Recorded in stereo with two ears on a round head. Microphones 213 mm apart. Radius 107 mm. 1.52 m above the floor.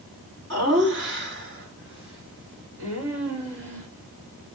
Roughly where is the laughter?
Right.